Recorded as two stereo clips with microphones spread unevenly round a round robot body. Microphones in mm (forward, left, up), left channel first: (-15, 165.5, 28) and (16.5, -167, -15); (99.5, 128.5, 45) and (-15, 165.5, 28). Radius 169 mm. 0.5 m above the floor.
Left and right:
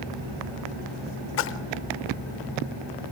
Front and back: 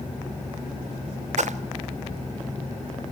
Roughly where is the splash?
Behind left.